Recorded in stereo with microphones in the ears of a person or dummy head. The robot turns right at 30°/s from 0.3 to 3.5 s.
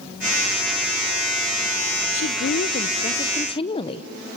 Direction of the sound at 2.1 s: 115° left.